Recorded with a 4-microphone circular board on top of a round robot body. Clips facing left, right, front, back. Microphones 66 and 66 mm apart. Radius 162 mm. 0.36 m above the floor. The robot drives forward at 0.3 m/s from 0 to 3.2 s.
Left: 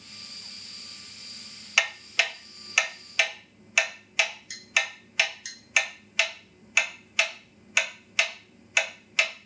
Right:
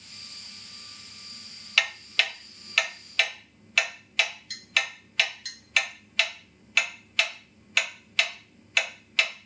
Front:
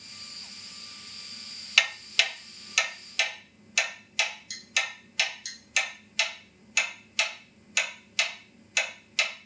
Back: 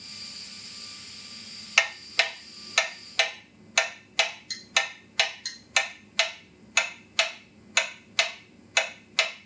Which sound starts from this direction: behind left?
Ticking, at 1.8 s.